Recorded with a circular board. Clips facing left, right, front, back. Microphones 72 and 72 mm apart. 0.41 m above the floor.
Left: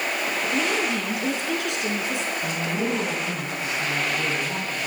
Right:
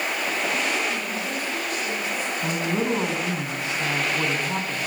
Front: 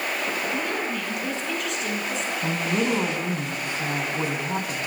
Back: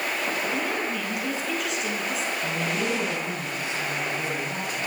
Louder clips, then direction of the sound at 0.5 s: Left 2 dB, even; 95° left.